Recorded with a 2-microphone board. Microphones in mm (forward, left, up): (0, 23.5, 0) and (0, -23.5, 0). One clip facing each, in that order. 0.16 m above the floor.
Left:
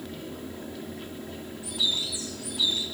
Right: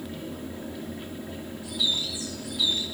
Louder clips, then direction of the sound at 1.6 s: Right 1 dB; 75° left (ahead or behind).